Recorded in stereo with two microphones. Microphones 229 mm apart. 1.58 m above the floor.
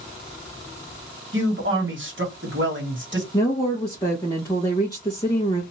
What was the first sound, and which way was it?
A man speaking, 55° right (ahead or behind).